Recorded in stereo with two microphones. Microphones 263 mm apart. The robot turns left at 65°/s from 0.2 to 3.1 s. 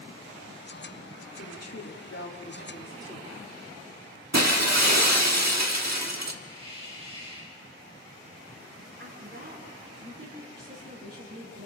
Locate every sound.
1.4 s a woman speaking: 120° left, 2.5 m; by 3.3 s 10° left, 2.5 m
4.3 s breaking glass: 85° right, 1.4 m
6.4 s a hiss: 25° right (ahead or behind), 4 m
9.0 s a woman speaking: 65° right (ahead or behind), 10 m